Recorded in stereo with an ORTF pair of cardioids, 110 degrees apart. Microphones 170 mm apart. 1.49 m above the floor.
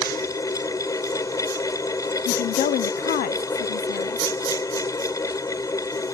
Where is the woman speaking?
55° left.